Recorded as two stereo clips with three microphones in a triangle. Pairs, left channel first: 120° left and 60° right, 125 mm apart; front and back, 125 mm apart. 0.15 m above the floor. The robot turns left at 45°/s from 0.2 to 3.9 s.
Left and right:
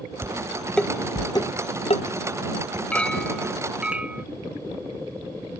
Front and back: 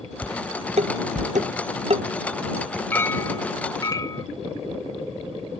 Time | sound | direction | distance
0.2 | dishes clattering | 130° right | ?
2.9 | a clink | 55° left | ?